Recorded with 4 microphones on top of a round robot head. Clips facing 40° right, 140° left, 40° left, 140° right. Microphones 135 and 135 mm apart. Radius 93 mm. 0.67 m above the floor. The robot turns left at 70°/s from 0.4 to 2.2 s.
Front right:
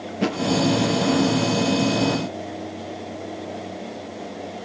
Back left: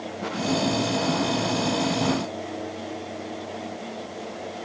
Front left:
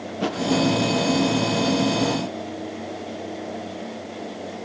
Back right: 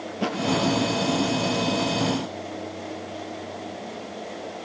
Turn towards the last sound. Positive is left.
turn(degrees=180)